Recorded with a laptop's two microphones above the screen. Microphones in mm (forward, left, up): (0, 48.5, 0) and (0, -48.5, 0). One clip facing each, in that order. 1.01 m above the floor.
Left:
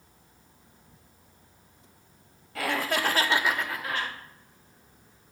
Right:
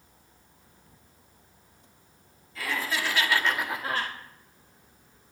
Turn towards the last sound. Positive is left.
turn(degrees=-45)  # may be behind; listen again after turning